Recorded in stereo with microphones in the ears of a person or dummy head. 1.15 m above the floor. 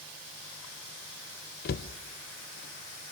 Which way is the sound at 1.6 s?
50° left (ahead or behind).